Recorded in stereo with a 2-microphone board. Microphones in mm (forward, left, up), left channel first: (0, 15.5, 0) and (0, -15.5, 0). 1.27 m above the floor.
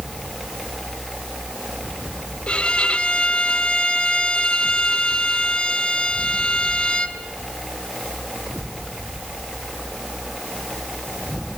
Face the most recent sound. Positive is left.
turn(degrees=35)  # may be behind; listen again after turning